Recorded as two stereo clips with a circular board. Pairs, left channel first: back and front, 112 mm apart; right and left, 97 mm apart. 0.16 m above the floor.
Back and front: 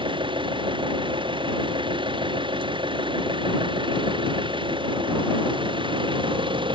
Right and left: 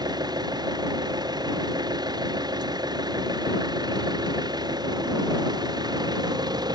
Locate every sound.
0.0 s an engine running: 45° left